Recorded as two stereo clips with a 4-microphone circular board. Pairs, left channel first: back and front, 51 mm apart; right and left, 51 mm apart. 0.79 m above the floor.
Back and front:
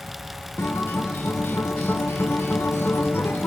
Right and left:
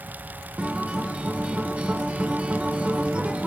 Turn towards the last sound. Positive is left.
turn(degrees=155)